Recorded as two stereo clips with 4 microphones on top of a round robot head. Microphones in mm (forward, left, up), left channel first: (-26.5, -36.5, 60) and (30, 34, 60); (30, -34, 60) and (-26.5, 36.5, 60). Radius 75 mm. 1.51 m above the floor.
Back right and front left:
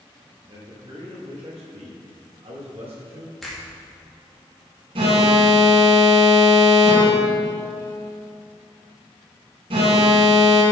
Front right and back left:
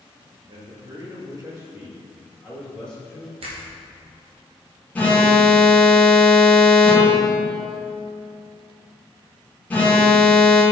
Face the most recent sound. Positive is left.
turn(degrees=25)